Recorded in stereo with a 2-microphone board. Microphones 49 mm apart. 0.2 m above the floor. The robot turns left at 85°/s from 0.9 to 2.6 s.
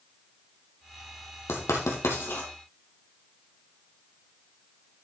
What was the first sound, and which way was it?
Writing, 60° left (ahead or behind).